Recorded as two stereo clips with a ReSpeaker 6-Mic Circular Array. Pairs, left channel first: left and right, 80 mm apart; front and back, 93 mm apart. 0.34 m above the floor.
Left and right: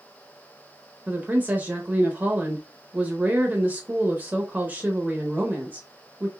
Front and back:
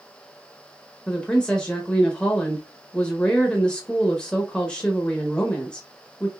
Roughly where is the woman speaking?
Ahead right.